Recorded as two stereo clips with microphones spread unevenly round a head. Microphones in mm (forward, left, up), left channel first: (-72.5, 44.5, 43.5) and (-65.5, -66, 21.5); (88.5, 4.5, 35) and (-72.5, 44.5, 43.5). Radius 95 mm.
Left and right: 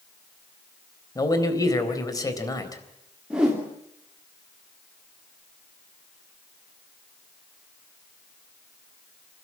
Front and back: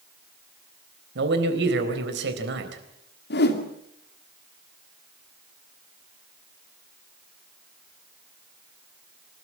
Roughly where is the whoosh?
Ahead.